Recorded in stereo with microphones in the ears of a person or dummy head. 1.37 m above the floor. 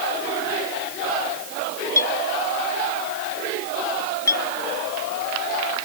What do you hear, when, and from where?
2.0 s a clink: 15° left (ahead or behind)